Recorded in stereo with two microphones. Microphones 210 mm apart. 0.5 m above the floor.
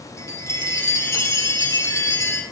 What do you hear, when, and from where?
0.2 s a chime: 15° left (ahead or behind), 3.5 m